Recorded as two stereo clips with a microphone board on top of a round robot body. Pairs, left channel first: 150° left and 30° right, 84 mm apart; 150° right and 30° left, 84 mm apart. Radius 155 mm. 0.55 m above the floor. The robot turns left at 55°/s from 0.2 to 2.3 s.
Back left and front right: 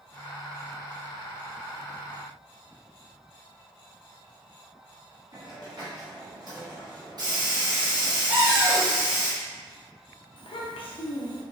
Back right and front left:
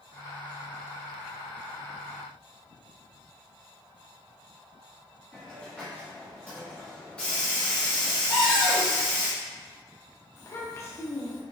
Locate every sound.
5.3 s a hiss: 75° right, 1.2 m
8.3 s a cupboard door: 100° right, 0.5 m
10.4 s a child speaking: 150° left, 0.8 m